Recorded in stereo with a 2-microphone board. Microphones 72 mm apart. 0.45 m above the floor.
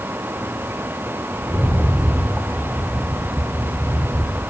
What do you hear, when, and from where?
1.4 s a rattle: 20° right (ahead or behind), 1.4 m